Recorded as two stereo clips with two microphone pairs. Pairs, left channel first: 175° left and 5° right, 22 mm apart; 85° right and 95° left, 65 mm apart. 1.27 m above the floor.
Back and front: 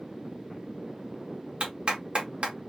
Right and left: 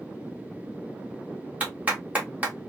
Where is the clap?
30° left, 1.4 m.